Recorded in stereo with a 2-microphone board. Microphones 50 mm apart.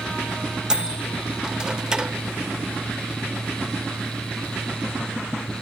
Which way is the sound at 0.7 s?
15° right (ahead or behind).